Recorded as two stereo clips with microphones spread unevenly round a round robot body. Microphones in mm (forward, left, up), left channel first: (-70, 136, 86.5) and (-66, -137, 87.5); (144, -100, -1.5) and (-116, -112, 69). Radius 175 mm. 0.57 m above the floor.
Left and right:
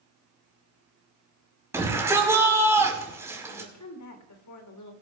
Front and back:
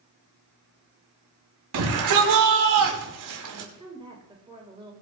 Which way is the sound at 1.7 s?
170° right.